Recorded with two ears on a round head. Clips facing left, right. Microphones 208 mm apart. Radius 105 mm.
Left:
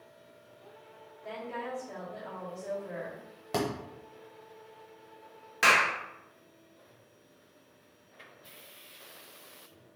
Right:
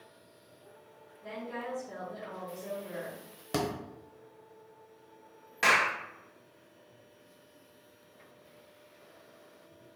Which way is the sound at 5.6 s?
10° left (ahead or behind).